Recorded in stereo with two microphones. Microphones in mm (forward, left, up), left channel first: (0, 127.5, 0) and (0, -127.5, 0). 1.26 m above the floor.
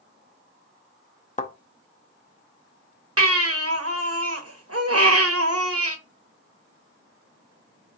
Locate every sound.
1.4 s a thud: 25° left (ahead or behind), 0.6 m
3.2 s a baby crying: 60° right (ahead or behind), 1.0 m